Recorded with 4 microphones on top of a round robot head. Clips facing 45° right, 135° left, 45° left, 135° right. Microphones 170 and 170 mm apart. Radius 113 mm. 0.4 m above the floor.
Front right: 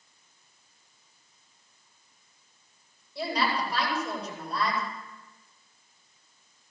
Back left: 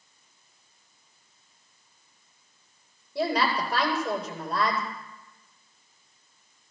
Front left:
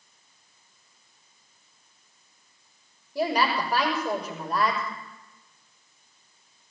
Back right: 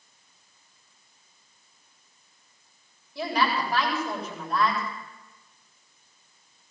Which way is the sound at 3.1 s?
95° left.